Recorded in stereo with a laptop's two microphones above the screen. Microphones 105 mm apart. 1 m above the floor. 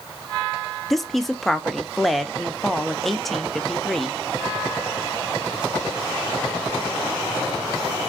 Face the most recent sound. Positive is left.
turn(degrees=0)  # may be behind; listen again after turning